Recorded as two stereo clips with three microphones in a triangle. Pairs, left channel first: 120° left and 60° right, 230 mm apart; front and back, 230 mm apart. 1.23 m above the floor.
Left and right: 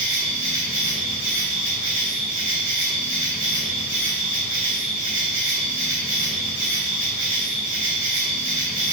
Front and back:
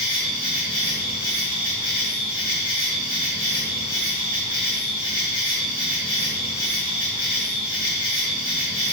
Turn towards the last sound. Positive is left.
turn(degrees=-65)